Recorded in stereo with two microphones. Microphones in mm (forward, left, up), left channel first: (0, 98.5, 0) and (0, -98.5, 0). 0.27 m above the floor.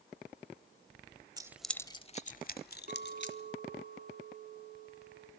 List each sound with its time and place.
1.4 s keys jangling: 20° right (ahead or behind), 0.6 m; by 3.4 s 65° left (ahead or behind), 1.5 m
2.9 s a clink: 50° right (ahead or behind), 1.8 m